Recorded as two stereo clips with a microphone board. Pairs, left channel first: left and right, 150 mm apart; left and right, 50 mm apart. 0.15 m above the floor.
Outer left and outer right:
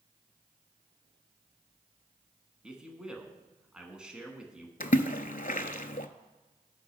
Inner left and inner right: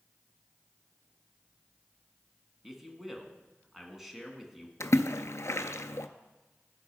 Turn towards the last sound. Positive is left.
turn(degrees=70)  # may be behind; listen again after turning